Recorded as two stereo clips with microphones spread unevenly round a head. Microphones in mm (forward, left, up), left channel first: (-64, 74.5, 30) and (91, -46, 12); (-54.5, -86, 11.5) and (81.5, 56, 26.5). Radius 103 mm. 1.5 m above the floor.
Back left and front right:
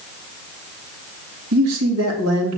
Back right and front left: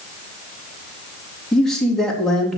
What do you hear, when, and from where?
1.5 s a man speaking: 45° right, 3.5 m